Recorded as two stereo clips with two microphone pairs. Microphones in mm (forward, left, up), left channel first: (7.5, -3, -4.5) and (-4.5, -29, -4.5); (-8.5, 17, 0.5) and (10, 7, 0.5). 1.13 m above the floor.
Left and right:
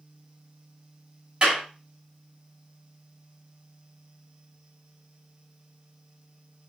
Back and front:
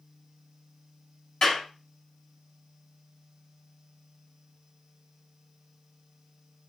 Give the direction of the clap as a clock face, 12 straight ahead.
6 o'clock.